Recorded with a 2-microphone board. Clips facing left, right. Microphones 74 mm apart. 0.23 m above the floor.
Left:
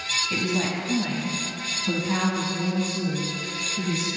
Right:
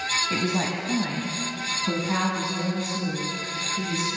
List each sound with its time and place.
0.3 s a woman speaking: 30° right (ahead or behind), 1.2 m; by 4.2 s centre (ahead or behind), 2.5 m